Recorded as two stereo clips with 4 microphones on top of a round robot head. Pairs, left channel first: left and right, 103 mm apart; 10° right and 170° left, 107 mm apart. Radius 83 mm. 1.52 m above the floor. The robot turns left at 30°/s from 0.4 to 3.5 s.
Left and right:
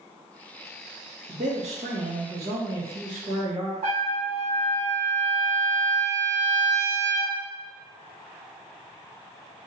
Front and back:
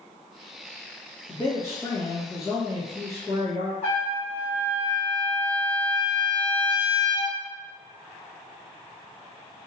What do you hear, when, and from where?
1.3 s a man speaking: 65° right, 1.1 m; by 3.7 s 130° right, 1.1 m
3.8 s a trumpet: 60° right, 1.7 m